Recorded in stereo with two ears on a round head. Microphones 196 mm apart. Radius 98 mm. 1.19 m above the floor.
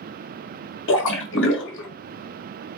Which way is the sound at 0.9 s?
60° left (ahead or behind).